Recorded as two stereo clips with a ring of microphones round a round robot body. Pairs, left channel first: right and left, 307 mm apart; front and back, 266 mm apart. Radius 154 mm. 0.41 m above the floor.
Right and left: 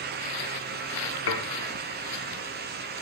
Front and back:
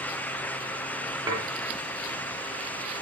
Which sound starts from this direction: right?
Dishes clattering, at 1.3 s.